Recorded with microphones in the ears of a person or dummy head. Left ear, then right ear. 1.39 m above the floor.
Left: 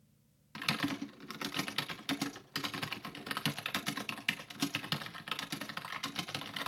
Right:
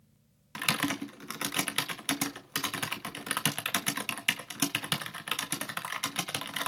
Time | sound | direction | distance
0.6 | typing on a keyboard | 20° right (ahead or behind) | 1.5 m